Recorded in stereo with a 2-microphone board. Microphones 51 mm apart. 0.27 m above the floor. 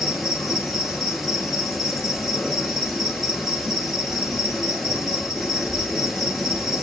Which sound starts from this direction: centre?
An insect, at 0.0 s.